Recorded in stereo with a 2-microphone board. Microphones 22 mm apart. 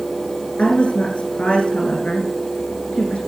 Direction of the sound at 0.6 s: 80° left.